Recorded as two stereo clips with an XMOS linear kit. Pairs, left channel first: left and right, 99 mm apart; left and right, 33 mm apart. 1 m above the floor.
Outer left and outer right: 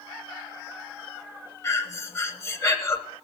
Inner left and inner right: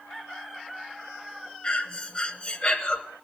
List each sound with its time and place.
1.6 s breathing: 30° left (ahead or behind), 1.0 m